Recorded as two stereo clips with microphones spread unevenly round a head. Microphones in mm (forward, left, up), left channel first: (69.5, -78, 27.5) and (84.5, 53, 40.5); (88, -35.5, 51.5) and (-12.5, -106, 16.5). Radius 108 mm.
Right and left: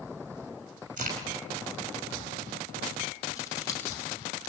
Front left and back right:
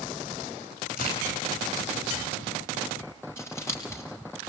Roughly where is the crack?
Ahead left.